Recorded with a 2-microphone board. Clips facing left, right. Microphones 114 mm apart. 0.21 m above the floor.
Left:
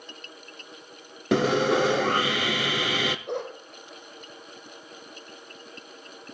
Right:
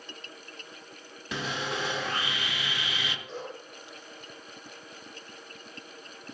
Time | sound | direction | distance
1.3 | sawing | 70° left (ahead or behind) | 0.5 m
3.3 | a dog barking | 60° left (ahead or behind) | 2.5 m